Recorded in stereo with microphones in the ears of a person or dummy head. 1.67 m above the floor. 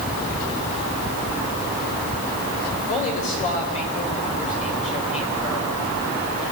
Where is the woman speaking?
40° left (ahead or behind), 5.5 m.